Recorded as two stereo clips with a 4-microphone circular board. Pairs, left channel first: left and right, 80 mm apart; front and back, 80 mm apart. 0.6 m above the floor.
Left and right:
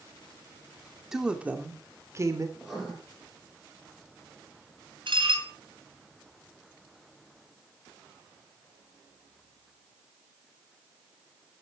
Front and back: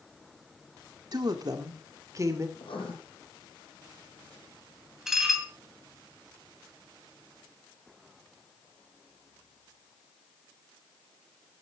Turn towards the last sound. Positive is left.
turn(degrees=-95)